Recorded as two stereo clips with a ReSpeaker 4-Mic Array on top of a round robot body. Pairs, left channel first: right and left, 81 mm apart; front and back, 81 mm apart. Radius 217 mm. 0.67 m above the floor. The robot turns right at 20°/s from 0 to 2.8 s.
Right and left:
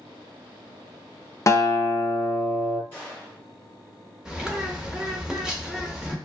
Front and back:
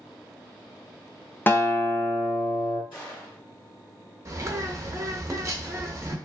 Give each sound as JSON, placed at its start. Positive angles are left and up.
{"t": 1.5, "sound": "a guitar", "azimuth_deg": -55, "distance_m": 0.7}
{"t": 2.9, "sound": "a gunshot", "azimuth_deg": -30, "distance_m": 1.2}
{"t": 4.2, "sound": "a bird", "azimuth_deg": 165, "distance_m": 0.9}